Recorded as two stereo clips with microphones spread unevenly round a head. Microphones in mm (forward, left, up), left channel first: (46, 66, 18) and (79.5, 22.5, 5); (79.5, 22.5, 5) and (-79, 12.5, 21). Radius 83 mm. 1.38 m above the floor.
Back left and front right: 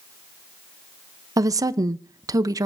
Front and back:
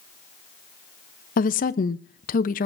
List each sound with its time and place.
1.4 s a woman speaking: 40° right, 0.7 m